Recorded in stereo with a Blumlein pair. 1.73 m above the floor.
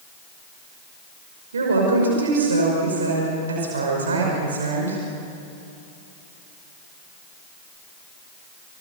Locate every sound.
1.5 s a woman speaking: 70° right, 5.5 m